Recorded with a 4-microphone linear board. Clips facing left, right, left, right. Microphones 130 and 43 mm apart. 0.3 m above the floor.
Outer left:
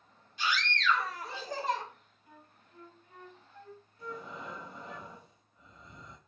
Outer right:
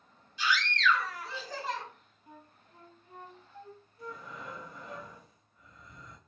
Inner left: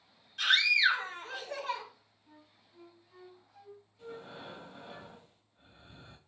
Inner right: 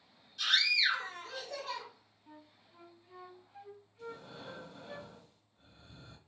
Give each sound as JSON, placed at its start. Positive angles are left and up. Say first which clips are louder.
{"t": 0.4, "sound": "a scream", "louder": "outer right 3 dB, inner left 4 dB", "side_deg": 50, "distance_m": 2.0}
{"t": 2.3, "sound": "a flute", "louder": "outer right 4 dB, inner right 4 dB", "side_deg": -30, "distance_m": 0.6}
{"t": 4.0, "sound": "breathing", "louder": "outer left 1 dB, inner left 1 dB", "side_deg": 25, "distance_m": 1.0}